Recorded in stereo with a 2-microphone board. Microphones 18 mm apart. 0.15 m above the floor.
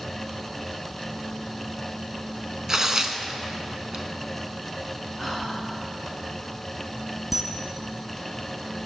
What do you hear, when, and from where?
2.7 s tearing paper: 35° right (ahead or behind), 0.5 m
5.2 s whispering: 10° right (ahead or behind), 2.0 m
7.3 s a camera shutter: 10° right (ahead or behind), 0.6 m